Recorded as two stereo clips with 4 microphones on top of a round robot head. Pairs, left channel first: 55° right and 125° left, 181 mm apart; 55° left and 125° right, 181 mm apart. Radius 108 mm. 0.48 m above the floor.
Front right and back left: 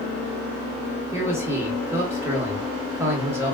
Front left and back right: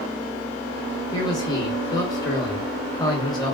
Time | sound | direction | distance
1.1 | a man speaking | 70° left | 1.1 m